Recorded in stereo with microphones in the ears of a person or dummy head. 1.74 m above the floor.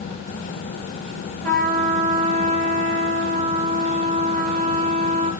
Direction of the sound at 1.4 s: 5° left (ahead or behind).